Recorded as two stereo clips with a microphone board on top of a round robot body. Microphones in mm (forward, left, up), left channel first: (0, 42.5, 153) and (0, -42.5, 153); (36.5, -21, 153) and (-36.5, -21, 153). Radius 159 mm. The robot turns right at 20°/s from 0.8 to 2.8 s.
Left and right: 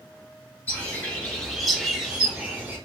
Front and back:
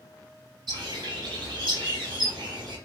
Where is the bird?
160° left, 3 m; by 2.8 s 160° right, 3 m.